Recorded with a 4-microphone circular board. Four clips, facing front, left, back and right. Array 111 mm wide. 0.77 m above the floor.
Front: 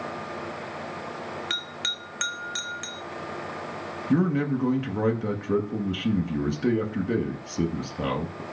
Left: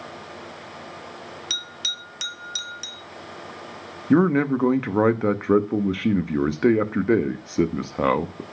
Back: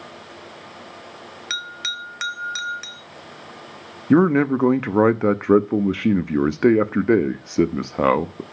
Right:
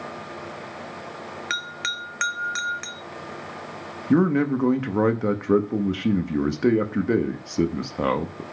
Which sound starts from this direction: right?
A bell, at 1.5 s.